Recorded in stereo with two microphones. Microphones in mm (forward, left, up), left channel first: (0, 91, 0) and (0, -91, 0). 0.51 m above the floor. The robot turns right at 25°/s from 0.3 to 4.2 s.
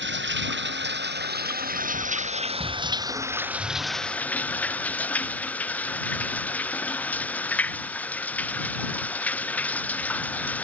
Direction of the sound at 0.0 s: 90° right.